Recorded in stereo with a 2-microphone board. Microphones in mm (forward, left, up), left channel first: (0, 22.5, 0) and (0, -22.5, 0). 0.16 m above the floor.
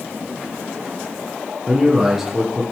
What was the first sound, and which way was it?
A man speaking, 5° right (ahead or behind).